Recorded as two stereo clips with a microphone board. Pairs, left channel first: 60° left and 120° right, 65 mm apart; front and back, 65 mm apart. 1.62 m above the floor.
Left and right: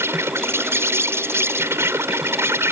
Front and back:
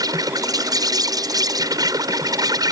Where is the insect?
170° right.